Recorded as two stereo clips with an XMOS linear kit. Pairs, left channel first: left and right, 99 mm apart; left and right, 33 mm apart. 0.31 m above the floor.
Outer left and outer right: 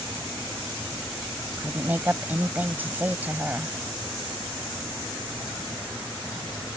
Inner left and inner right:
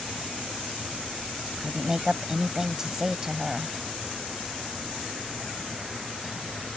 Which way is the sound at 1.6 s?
20° right (ahead or behind).